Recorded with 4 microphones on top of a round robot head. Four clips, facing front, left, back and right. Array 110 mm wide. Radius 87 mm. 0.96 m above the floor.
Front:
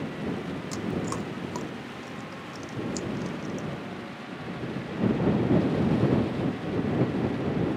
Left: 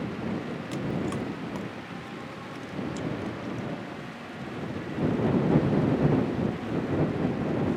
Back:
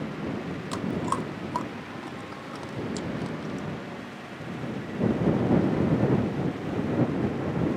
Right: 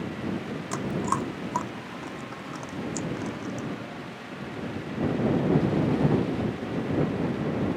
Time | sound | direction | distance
0.7 | chewing | 125° right | ?